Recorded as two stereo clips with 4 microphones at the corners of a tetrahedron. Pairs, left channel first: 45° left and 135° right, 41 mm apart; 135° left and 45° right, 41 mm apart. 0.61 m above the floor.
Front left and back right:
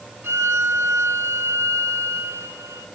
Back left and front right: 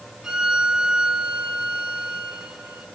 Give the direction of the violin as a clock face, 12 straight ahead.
4 o'clock.